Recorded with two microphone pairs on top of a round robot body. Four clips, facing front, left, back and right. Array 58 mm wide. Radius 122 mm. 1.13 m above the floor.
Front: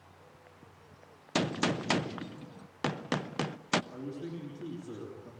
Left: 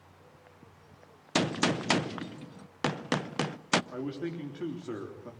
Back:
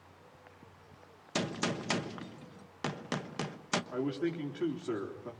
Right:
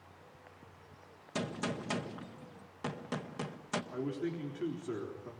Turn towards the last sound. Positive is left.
turn(degrees=135)